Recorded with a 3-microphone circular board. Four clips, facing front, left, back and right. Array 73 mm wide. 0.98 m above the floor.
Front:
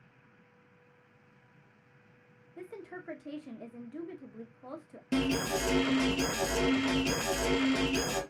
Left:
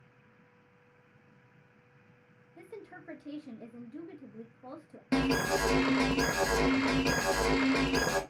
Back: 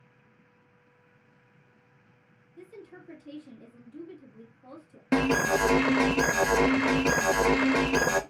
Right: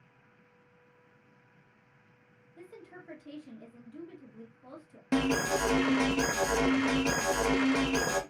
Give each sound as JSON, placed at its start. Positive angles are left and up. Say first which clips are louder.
{"t": 2.6, "sound": "a woman speaking", "louder": "left 2 dB, front 3 dB", "azimuth_deg": 25, "distance_m": 0.9}
{"t": 5.1, "sound": "an alarm", "louder": "even, back 6 dB", "azimuth_deg": -170, "distance_m": 0.5}